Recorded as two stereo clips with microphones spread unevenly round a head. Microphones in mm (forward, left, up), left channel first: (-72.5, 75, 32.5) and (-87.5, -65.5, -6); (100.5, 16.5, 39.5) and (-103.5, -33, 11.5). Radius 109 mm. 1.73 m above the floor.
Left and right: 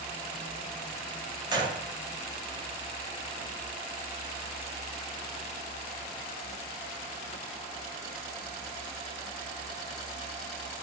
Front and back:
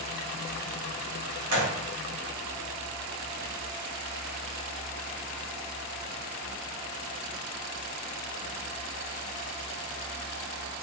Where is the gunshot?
160° right, 1.2 m.